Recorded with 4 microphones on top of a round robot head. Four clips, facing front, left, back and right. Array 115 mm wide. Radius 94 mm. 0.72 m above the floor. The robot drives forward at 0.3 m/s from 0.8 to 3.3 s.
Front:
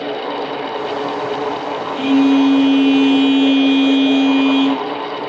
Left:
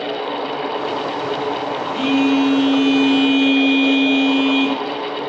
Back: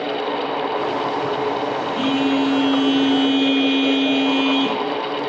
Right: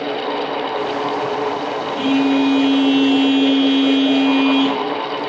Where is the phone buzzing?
50° left, 0.9 m; by 4.8 s 80° left, 0.7 m.